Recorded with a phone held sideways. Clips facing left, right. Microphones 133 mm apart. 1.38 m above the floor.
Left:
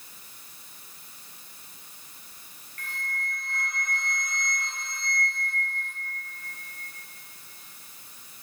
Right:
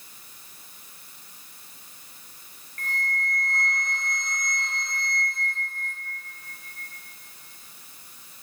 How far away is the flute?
About 0.9 m.